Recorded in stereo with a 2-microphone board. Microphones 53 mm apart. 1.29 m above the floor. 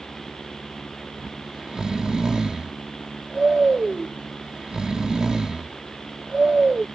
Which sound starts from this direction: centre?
Snoring, at 1.2 s.